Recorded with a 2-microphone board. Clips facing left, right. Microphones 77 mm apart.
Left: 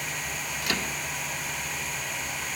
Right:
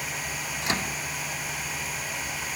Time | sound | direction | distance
0.6 | a microwave | 30° right (ahead or behind) | 1.1 m